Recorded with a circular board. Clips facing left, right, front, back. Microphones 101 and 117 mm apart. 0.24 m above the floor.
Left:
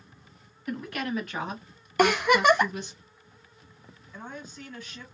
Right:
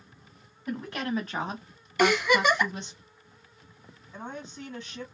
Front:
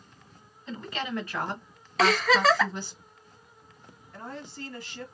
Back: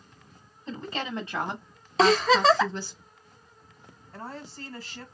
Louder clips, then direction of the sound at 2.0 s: Left 2 dB, back 3 dB; 120° left.